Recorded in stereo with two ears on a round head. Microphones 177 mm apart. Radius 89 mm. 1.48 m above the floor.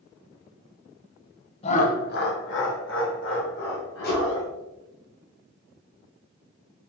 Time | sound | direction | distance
1.6 | laughter | 30° left (ahead or behind) | 0.6 m
4.0 | a whoosh | 50° left (ahead or behind) | 1.0 m